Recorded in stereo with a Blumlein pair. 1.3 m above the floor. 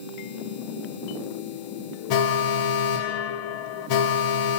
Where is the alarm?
45° left, 0.7 m.